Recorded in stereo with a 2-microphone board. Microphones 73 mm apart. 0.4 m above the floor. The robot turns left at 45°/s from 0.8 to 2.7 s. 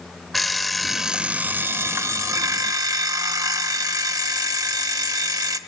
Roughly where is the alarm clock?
Ahead.